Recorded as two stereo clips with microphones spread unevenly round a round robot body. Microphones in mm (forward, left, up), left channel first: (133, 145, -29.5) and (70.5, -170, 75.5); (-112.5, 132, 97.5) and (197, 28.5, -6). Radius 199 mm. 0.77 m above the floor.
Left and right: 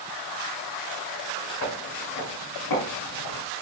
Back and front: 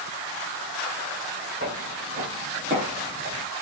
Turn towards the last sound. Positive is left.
turn(degrees=55)